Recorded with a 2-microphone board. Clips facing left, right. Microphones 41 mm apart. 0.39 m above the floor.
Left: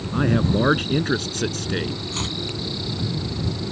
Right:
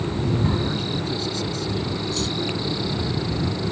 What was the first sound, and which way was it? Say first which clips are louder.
A man speaking: left 7 dB; 60° left (ahead or behind).